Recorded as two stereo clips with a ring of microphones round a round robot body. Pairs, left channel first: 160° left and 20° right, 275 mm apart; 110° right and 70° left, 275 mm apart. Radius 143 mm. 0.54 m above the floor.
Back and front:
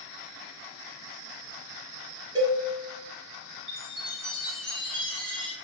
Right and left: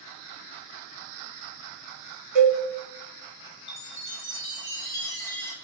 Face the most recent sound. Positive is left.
turn(degrees=-65)